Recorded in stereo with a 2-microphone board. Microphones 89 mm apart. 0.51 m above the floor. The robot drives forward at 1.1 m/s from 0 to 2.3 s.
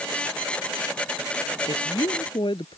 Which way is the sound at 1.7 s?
60° left (ahead or behind).